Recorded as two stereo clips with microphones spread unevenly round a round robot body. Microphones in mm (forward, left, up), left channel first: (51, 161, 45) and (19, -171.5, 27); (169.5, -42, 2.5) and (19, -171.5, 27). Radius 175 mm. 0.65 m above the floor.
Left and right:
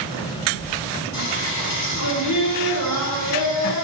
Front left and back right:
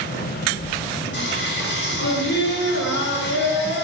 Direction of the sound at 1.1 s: 50° left.